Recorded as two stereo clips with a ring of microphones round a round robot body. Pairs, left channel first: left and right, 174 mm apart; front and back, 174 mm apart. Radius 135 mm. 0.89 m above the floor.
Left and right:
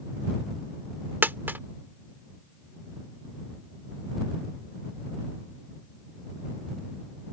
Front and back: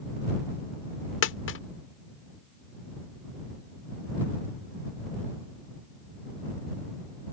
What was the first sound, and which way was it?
A dropped coin, 10° right.